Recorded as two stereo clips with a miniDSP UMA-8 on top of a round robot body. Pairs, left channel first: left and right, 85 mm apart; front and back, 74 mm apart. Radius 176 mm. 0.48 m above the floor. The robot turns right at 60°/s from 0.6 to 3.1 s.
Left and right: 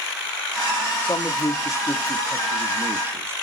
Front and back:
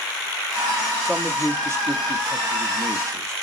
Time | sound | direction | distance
1.1 | a man speaking | 95° left | 1.2 m